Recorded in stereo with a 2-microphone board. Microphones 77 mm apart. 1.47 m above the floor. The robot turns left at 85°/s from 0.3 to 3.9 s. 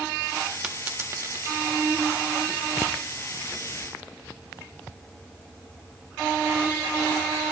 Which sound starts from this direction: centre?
A dropped coin, at 0.6 s.